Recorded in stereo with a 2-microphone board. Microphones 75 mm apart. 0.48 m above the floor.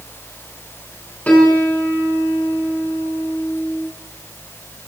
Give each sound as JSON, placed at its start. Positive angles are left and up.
{"t": 1.3, "sound": "a piano", "side_deg": 20, "distance_m": 6.0}